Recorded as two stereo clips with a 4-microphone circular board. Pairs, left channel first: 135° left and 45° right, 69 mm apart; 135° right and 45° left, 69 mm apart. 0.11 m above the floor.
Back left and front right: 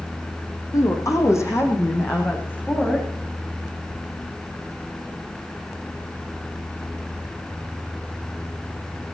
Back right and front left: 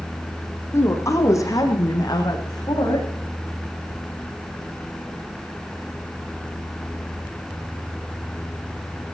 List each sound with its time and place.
0.7 s a woman speaking: 175° left, 5 m; by 3.1 s 155° right, 7 m